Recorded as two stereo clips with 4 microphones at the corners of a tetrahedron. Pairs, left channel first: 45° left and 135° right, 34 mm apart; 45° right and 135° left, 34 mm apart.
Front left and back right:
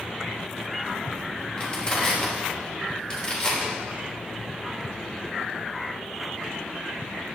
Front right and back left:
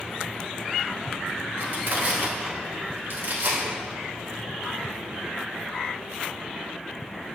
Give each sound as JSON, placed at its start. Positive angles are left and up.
{"t": 1.6, "sound": "crushing", "azimuth_deg": 115, "distance_m": 3.0}